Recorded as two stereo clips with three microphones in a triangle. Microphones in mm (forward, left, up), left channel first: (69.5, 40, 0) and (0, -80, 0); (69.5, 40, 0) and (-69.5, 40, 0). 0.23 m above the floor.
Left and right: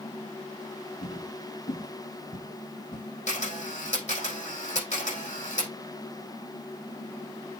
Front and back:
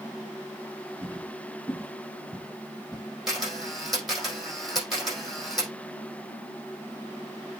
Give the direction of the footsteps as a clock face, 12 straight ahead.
9 o'clock.